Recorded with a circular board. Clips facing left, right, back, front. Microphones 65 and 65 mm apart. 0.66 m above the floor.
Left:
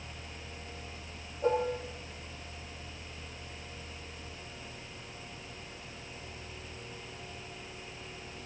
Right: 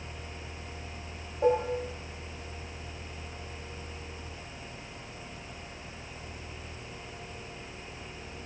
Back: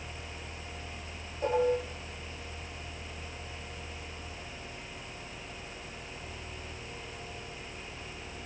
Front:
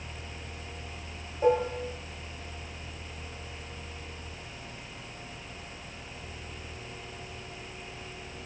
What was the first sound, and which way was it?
Dishes clattering, 70° right.